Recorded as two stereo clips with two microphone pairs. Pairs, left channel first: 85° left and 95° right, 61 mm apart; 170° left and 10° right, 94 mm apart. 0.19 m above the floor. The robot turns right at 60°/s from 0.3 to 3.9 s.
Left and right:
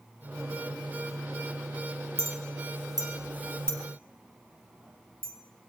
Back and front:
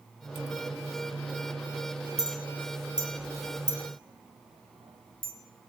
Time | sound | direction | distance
2.2 | a clink | 145° right | 4 m